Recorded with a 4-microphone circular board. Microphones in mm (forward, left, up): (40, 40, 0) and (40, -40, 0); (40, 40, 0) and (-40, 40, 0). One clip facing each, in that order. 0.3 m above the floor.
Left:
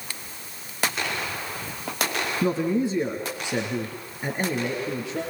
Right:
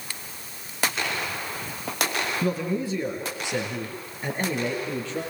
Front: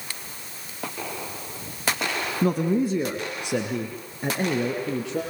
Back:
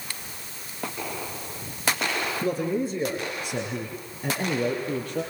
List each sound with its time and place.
2.4 s a man speaking: 25° left, 3 m; by 5.2 s 15° left, 7 m